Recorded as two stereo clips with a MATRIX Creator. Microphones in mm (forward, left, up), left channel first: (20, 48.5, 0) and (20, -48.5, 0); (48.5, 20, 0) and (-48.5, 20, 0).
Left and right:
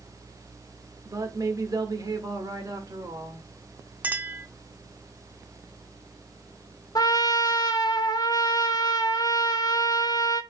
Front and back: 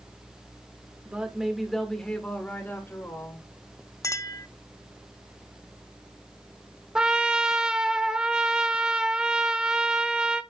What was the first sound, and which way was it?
A woman speaking, 115° right.